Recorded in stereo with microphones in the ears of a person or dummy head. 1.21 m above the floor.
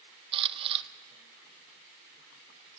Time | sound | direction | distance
0.3 | a camera shutter | 35° right (ahead or behind) | 0.9 m